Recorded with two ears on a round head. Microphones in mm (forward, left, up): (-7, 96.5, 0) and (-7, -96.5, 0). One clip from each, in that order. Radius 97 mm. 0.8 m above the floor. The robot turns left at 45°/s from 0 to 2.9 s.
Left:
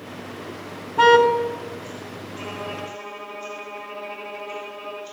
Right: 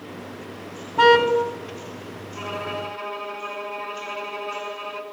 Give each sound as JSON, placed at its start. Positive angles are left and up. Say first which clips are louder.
{"t": 1.0, "sound": "a car horn", "louder": "left 1 dB", "side_deg": -5, "distance_m": 3.0}
{"t": 2.4, "sound": "a violin", "louder": "right 3 dB", "side_deg": -30, "distance_m": 5.0}